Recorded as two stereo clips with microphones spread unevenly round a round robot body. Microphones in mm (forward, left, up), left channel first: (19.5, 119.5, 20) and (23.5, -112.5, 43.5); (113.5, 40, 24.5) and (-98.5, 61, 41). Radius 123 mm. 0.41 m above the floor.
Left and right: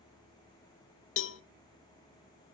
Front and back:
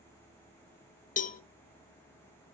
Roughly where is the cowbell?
Ahead left.